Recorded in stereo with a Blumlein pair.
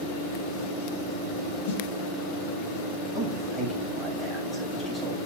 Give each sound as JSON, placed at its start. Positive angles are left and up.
{"t": 1.6, "sound": "a snare drum", "azimuth_deg": 50, "distance_m": 2.5}
{"t": 3.1, "sound": "a man speaking", "azimuth_deg": 0, "distance_m": 5.5}